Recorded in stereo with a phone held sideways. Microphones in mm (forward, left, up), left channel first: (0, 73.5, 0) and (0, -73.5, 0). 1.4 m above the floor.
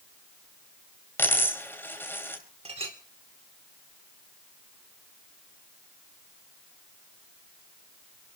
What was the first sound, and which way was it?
A dropped coin, 15° left (ahead or behind).